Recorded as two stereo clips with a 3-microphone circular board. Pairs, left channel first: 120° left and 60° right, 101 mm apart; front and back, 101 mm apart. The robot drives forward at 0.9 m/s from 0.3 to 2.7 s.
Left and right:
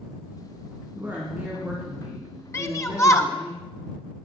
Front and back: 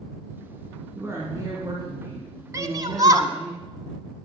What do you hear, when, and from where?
0.9 s a woman speaking: 120° right, 2 m; by 3.5 s 150° right, 3 m
2.5 s a shout: 155° left, 1.2 m; by 3.3 s 160° left, 1.3 m